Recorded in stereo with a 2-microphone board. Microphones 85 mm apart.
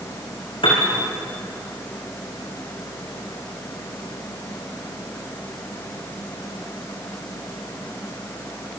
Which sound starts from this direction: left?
A piano, at 0.6 s.